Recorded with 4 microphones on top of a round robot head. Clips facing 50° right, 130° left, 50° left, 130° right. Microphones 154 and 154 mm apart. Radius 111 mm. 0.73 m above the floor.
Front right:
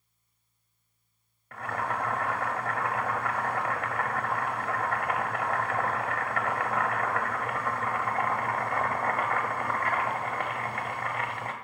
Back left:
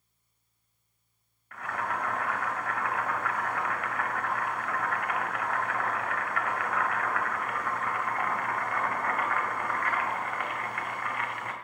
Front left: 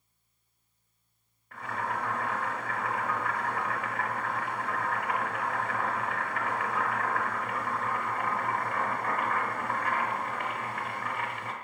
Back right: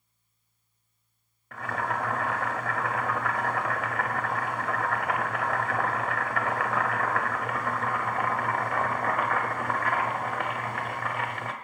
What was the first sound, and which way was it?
Boiling, 110° right.